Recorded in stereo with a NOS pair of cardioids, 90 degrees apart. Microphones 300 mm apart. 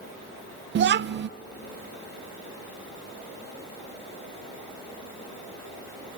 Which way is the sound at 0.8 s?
40° right.